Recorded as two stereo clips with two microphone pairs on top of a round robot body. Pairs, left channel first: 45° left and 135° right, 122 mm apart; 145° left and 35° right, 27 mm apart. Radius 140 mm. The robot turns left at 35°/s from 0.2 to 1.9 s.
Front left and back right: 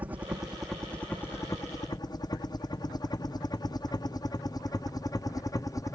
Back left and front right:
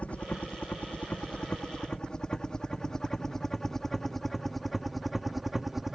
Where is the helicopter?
165° left; by 5.9 s 15° left.